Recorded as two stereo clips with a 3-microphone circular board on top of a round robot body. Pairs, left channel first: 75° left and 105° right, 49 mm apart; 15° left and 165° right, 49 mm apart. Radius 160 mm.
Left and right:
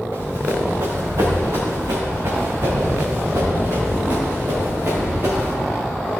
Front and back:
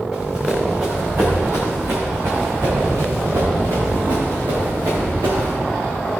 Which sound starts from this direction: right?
Running footsteps, at 0.1 s.